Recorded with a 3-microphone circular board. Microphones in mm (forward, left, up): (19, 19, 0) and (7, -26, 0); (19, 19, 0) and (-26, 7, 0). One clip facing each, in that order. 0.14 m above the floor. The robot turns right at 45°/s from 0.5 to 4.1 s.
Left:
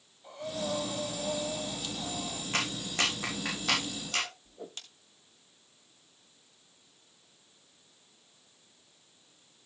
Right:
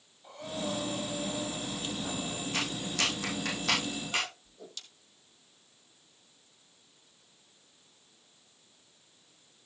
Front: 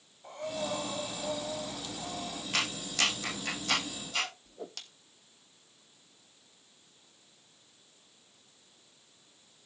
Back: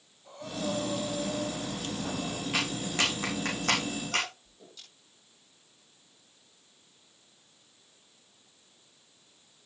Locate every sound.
0.2 s breathing: 15° right, 7.5 m; by 2.4 s 75° left, 7.5 m
2.5 s a clap: 110° left, 6 m; by 4.3 s straight behind, 6 m
4.5 s a whoosh: 20° left, 1.9 m